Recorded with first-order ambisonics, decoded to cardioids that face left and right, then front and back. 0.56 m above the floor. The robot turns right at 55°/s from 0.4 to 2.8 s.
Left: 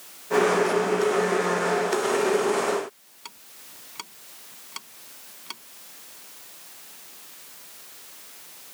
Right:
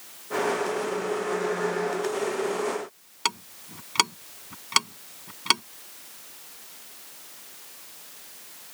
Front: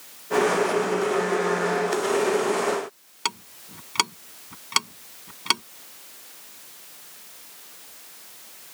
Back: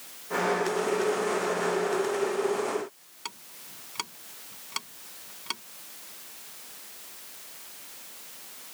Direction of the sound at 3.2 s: 50° right.